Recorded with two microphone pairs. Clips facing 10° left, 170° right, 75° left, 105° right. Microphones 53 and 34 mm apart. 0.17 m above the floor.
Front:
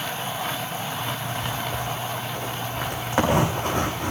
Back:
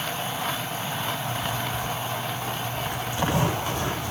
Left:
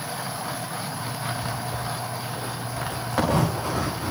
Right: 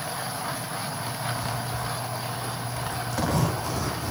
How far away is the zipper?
About 7 m.